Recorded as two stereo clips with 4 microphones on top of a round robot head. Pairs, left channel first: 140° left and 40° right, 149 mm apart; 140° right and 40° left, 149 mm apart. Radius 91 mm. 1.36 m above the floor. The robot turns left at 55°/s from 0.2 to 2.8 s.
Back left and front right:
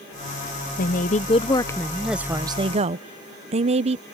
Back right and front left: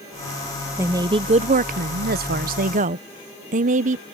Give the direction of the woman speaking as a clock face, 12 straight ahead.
8 o'clock.